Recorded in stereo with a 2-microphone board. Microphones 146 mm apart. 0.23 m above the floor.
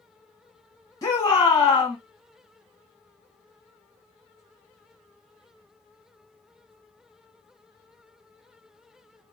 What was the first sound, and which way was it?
A shout, 30° left (ahead or behind).